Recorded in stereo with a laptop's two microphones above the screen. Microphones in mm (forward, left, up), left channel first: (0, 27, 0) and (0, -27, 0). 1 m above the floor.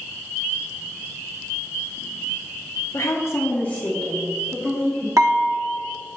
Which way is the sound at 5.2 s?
70° right (ahead or behind).